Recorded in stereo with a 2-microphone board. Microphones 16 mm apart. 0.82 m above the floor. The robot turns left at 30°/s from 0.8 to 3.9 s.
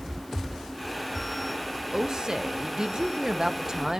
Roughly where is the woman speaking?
Right.